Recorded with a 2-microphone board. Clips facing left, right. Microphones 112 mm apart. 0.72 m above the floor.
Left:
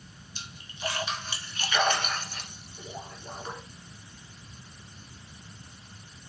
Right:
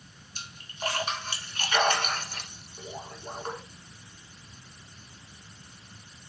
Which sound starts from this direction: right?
A splash, at 0.3 s.